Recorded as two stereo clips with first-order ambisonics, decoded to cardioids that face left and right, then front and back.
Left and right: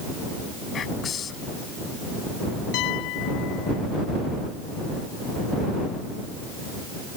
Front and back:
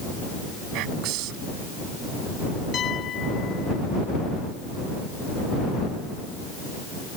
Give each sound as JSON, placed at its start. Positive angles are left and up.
{"t": 0.7, "sound": "whispering", "azimuth_deg": 155}
{"t": 2.7, "sound": "a piano", "azimuth_deg": 60}